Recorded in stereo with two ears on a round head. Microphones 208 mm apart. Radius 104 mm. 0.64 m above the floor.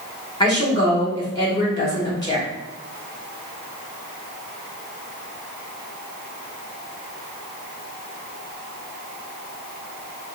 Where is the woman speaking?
20° left (ahead or behind), 1.1 m.